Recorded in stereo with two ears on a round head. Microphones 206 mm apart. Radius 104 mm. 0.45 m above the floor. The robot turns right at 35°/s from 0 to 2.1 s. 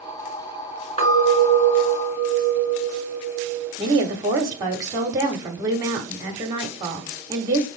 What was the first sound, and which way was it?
A clink, 25° left.